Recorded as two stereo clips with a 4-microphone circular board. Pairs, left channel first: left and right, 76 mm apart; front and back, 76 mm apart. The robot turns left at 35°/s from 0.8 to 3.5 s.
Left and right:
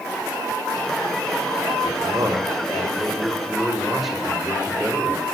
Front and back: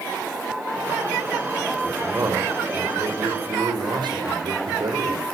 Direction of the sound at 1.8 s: 120° right.